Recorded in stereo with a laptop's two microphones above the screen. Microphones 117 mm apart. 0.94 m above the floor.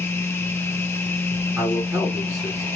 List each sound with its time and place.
0.0 s a machine running: 20° left (ahead or behind), 0.8 m
1.6 s a man speaking: 10° right (ahead or behind), 1.9 m